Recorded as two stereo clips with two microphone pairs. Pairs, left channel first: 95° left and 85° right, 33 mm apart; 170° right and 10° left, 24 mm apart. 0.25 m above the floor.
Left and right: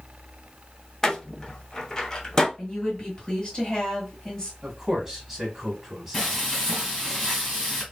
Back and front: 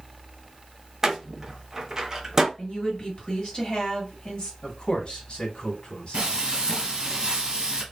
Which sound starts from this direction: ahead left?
A door slam, at 1.0 s.